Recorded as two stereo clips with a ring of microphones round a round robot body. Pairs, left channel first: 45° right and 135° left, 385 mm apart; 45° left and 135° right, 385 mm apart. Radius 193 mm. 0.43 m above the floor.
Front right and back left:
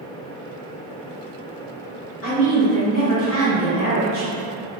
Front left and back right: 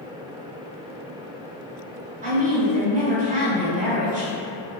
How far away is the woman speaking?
About 1.2 m.